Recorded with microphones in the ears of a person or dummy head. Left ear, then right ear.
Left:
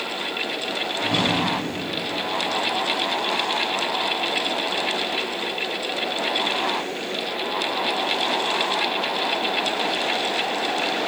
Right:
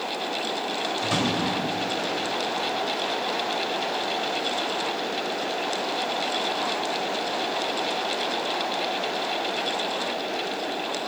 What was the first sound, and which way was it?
A drawer, 50° right (ahead or behind).